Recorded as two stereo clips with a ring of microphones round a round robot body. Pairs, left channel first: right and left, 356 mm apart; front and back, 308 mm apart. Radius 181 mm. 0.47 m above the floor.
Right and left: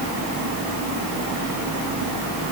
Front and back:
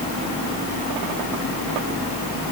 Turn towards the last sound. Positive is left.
No sound to turn to.